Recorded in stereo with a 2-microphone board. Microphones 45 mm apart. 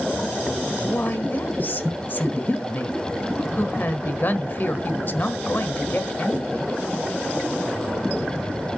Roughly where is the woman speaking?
Left.